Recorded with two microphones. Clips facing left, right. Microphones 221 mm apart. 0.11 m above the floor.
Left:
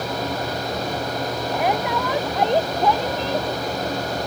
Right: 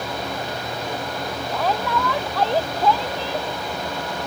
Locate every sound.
1.5 s a shout: 15° left (ahead or behind)